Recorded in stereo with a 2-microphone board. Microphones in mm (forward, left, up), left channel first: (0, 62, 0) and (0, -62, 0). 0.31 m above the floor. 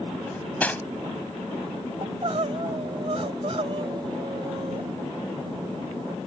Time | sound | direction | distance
0.3 | cutlery clinking | 15° left (ahead or behind) | ?
2.0 | crying | 55° right (ahead or behind) | ?